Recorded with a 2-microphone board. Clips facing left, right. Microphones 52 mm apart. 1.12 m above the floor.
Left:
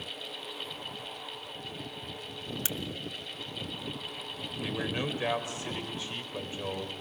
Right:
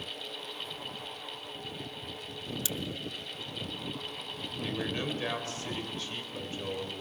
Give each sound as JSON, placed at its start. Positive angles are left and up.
{"t": 2.6, "sound": "a crack", "side_deg": 35, "distance_m": 0.8}
{"t": 4.6, "sound": "a man speaking", "side_deg": 20, "distance_m": 4.0}